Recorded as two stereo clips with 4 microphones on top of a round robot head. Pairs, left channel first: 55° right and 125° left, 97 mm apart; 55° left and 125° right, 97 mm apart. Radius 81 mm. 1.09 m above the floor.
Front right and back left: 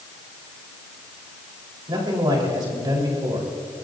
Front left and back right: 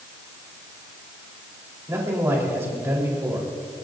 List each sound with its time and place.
1.9 s a man speaking: 170° left, 4 m